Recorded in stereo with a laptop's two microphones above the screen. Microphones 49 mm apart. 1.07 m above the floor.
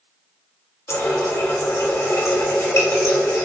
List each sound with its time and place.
0.9 s a running tap: 70° left (ahead or behind), 0.9 m